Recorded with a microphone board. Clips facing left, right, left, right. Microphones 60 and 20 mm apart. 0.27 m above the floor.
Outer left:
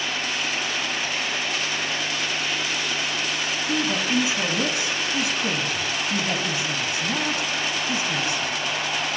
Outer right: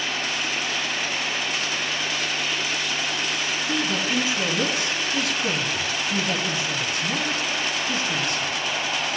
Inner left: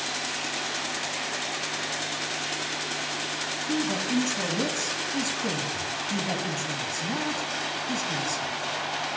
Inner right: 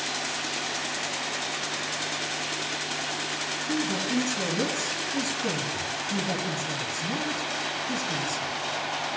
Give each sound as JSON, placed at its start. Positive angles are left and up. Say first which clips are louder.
{"t": 3.7, "sound": "a man speaking", "louder": "outer left 2 dB, inner left 1 dB", "side_deg": 20, "distance_m": 2.5}